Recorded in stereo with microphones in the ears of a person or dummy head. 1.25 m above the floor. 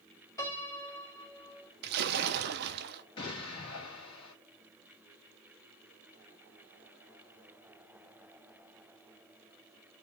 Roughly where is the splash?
Right.